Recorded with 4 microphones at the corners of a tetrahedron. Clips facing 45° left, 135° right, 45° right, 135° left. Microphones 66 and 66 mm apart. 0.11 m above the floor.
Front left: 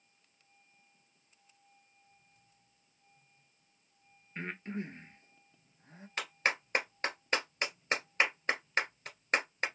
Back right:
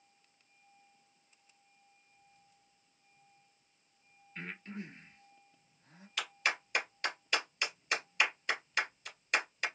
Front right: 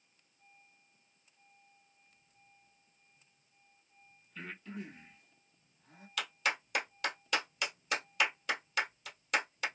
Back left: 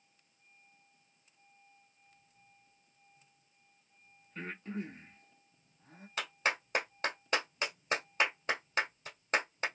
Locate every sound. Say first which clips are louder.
4.3 s breathing: front left 5 dB, back left 4 dB; 95° left, 1.2 m
6.2 s a clap: front left 2 dB, back left 1 dB; 85° left, 1.8 m